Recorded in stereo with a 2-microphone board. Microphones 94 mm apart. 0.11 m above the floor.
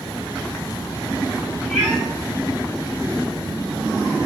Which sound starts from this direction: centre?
A cat meowing, at 1.7 s.